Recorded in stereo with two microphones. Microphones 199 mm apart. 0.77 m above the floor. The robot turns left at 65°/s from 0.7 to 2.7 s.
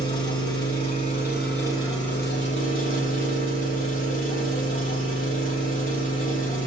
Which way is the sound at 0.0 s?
135° right.